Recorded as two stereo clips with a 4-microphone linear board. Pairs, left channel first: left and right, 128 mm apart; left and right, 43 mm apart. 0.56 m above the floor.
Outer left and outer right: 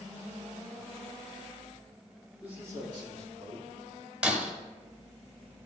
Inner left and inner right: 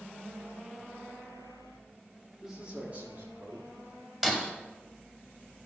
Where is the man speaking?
10° right (ahead or behind), 1.6 m; by 3.7 s 60° right (ahead or behind), 2.5 m.